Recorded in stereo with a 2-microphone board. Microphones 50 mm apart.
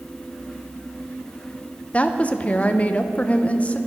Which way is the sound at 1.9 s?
25° left (ahead or behind).